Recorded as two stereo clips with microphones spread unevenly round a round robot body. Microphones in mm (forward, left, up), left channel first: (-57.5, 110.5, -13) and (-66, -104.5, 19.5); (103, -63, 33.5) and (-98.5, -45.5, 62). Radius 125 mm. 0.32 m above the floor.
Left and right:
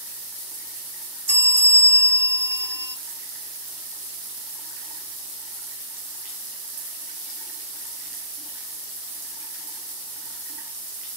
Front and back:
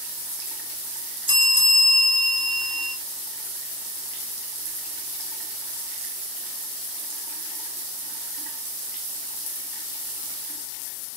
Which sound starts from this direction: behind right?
A bell, at 1.3 s.